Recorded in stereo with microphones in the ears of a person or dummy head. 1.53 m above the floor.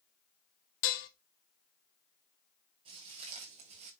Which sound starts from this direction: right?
Footsteps, at 2.9 s.